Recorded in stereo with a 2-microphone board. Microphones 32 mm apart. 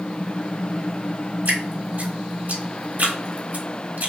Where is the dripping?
65° right (ahead or behind), 2.5 m.